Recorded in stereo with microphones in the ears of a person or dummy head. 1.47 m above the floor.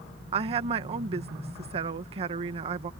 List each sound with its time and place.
0.3 s a woman speaking: 35° right (ahead or behind)